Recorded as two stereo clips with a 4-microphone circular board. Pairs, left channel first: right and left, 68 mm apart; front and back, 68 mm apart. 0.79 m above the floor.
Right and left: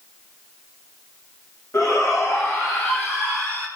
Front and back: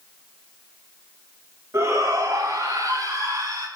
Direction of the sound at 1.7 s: 135° right.